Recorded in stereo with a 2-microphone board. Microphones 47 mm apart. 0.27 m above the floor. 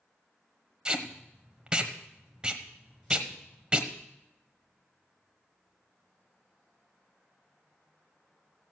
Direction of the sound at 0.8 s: 20° right (ahead or behind).